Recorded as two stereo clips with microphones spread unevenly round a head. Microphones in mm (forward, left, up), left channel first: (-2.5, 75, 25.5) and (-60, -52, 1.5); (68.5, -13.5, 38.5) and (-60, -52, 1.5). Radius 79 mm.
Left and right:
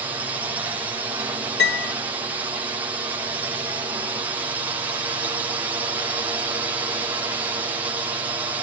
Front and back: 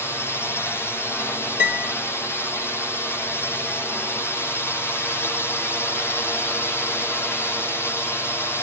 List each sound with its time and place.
0.0 s a drone: 65° right
1.6 s a piano: 60° left